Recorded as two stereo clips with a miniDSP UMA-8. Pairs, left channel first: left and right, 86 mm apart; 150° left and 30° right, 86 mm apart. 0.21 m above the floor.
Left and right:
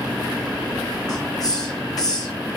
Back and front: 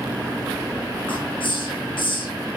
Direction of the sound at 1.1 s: 135° left.